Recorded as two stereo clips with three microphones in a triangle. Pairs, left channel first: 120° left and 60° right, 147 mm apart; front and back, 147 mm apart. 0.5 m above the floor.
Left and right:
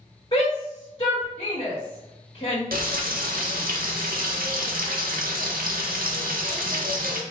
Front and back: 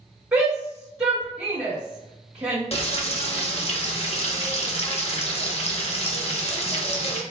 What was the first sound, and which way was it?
A shout, 110° left.